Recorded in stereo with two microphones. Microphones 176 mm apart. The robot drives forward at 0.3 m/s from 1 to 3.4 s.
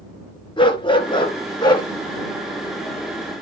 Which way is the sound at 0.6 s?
30° left (ahead or behind).